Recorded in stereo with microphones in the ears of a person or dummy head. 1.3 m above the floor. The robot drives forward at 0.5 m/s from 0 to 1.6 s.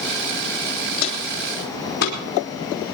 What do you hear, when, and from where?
1.0 s footsteps: 45° left (ahead or behind), 3.5 m; by 2.2 s 60° left (ahead or behind), 4.5 m